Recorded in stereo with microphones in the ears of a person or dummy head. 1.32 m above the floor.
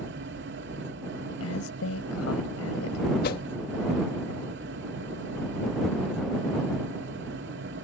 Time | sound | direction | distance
0.0 | a fan | 60° right (ahead or behind) | ?
1.4 | a woman speaking | 85° left | ?
3.2 | a whoosh | 55° left (ahead or behind) | ?